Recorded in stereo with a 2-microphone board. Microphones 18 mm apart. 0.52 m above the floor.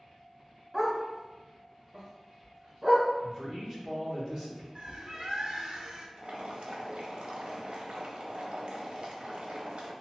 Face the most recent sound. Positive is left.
turn(degrees=-65)  # may be behind; listen again after turning